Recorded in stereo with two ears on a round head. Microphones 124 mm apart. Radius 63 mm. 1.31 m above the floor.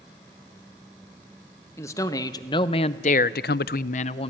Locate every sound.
1.8 s a man speaking: 20° left (ahead or behind), 1.4 m; by 4.3 s 45° left (ahead or behind), 0.7 m